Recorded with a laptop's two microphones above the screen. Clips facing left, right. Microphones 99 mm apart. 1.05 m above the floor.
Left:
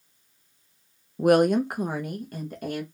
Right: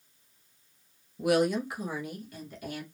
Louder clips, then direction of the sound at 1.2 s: Left 7 dB; 45° left (ahead or behind).